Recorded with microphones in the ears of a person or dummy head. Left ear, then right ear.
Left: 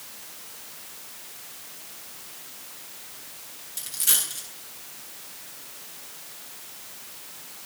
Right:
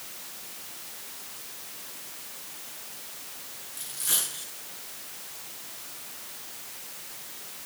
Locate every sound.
3.8 s a dropped coin: 25° left (ahead or behind), 7 m